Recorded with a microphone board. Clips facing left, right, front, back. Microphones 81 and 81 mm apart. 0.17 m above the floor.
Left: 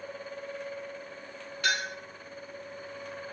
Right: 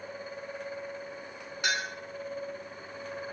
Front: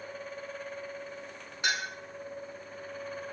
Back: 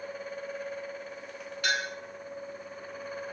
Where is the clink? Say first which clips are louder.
Left 1 dB, back 2 dB; 45° right, 1.1 m.